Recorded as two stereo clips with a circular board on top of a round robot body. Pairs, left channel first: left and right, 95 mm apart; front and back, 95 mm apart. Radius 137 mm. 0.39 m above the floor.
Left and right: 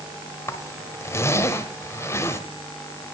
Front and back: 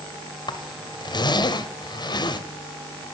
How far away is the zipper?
About 0.8 m.